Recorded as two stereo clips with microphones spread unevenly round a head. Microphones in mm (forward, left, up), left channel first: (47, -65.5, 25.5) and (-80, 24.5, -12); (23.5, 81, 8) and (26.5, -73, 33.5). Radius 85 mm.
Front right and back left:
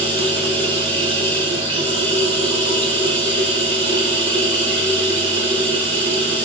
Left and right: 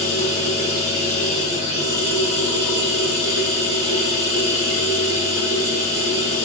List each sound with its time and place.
0.0 s running water: 155° right, 6 m